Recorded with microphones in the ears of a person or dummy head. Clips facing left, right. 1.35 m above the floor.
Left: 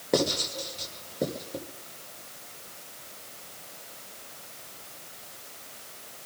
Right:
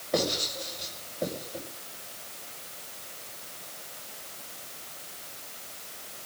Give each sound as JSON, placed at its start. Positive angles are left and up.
{"t": 0.1, "sound": "writing", "side_deg": 75, "distance_m": 5.0}